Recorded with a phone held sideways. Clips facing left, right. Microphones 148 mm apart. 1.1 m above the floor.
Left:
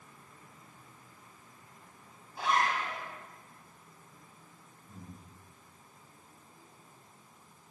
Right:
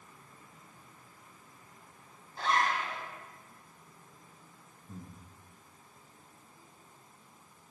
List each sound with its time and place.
2.4 s a zipper: 5° left (ahead or behind), 1.2 m
4.9 s breathing: 70° right (ahead or behind), 1.2 m